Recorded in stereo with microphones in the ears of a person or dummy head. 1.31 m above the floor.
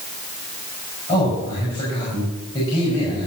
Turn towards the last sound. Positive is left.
turn(degrees=30)  # may be behind; listen again after turning